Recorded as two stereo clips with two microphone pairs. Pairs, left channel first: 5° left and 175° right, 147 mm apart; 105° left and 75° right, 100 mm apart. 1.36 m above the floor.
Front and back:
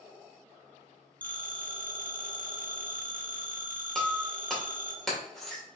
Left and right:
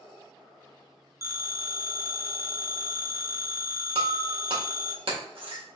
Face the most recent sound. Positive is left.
turn(degrees=-85)